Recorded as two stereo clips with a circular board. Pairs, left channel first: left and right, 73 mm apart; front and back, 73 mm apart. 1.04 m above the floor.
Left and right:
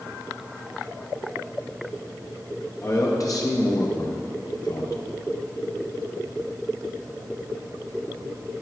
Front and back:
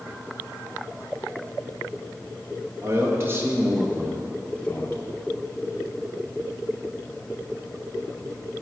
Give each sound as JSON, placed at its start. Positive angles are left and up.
{"t": 2.8, "sound": "a man speaking", "azimuth_deg": 135, "distance_m": 1.4}